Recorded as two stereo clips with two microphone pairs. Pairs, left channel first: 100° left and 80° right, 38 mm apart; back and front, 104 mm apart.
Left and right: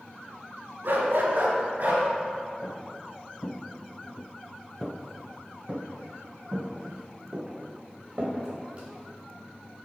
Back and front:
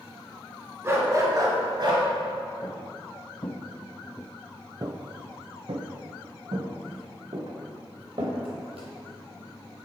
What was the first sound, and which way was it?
A dog barking, 60° right.